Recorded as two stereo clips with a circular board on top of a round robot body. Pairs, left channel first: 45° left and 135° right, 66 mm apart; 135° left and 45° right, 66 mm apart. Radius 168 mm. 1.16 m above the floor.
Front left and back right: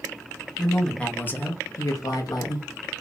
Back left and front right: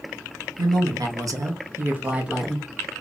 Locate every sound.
0.6 s a woman speaking: 40° right, 0.9 m; by 2.7 s 45° left, 0.8 m